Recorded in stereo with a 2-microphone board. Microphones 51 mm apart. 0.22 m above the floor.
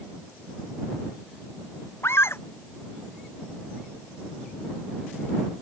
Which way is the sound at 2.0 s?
60° left (ahead or behind).